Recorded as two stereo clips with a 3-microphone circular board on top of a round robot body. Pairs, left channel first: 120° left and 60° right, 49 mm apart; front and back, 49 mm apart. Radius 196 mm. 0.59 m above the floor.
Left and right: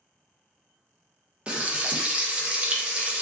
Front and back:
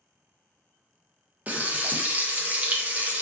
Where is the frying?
125° right, 0.7 m.